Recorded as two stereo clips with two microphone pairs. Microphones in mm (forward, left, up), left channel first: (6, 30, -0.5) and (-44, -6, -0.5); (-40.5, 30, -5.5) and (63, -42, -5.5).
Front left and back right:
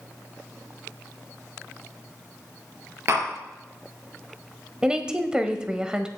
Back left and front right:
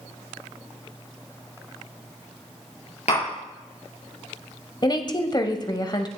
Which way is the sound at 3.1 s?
175° left.